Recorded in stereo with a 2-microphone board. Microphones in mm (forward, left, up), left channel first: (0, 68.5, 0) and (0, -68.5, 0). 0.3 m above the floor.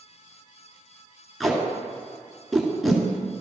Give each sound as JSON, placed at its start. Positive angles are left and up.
{"t": 1.4, "sound": "tape being pulled", "side_deg": 0, "distance_m": 1.5}